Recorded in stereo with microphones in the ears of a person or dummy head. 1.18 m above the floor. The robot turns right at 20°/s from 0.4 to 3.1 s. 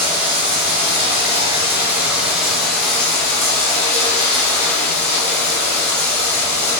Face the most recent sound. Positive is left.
turn(degrees=10)